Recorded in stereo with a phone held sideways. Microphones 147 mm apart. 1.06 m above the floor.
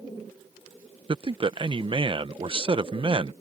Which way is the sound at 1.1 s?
35° right (ahead or behind).